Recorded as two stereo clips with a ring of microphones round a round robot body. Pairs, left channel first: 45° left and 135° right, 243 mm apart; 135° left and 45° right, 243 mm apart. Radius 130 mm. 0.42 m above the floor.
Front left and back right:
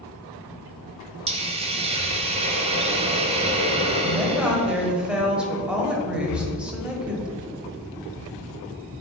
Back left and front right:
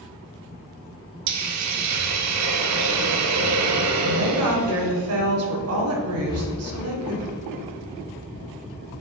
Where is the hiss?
65° right, 1.0 m.